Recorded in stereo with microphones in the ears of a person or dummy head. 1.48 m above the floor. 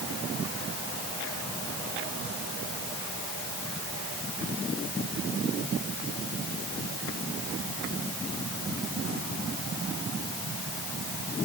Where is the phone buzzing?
No phone buzzing in this recording.